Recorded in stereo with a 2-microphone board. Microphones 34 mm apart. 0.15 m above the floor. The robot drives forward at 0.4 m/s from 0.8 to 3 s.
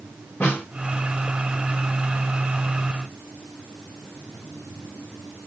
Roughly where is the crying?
No crying in this recording.